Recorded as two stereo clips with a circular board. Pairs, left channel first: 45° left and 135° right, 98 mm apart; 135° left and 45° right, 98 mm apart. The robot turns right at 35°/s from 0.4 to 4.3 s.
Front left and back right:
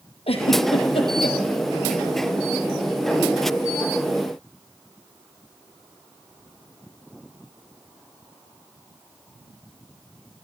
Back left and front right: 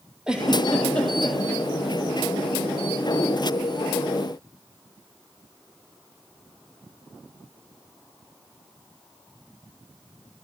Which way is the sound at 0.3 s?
35° left.